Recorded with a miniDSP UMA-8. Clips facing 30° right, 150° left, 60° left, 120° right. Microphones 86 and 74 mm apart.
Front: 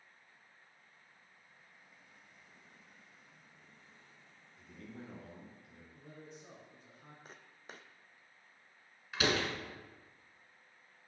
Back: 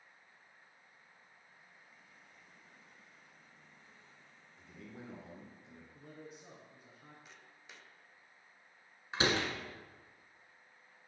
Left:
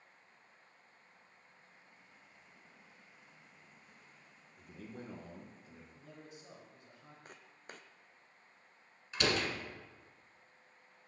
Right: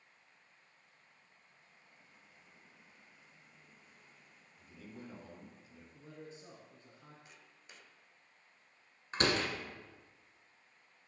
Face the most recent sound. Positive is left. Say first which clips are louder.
# even, right 1 dB
turn(degrees=-155)